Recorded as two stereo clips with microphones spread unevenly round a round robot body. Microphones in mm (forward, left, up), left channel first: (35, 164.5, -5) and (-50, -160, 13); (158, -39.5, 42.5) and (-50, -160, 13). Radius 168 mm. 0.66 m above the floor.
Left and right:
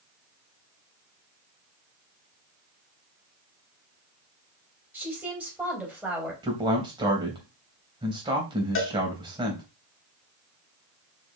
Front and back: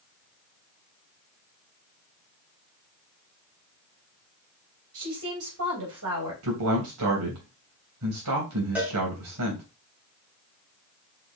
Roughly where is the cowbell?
Behind left.